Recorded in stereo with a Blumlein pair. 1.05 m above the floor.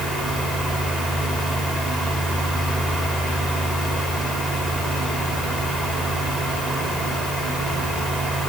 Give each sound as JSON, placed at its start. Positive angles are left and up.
{"t": 0.0, "sound": "a fan", "azimuth_deg": -10, "distance_m": 3.0}